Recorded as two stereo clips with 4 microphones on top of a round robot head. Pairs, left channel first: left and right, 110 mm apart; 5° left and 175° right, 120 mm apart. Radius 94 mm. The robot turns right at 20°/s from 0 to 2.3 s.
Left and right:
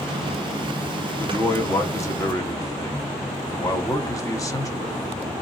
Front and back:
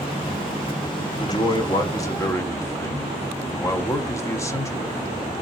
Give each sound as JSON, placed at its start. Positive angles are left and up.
{"t": 1.2, "sound": "a man speaking", "azimuth_deg": 30, "distance_m": 1.1}